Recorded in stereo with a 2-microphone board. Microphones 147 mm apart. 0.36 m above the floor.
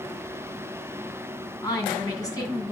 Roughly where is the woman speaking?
Left.